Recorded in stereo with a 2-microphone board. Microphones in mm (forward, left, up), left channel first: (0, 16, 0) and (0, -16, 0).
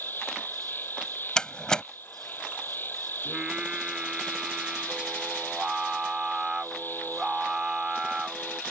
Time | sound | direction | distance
0.0 | an insect | 85° left | ?
1.4 | a door slam | 20° left (ahead or behind) | ?
3.2 | singing | 25° right (ahead or behind) | ?